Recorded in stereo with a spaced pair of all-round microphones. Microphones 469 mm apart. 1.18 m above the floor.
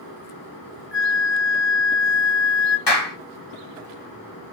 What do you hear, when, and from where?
0.9 s a flute: 60° left (ahead or behind), 1.6 m
2.9 s a clap: 55° left (ahead or behind), 1.1 m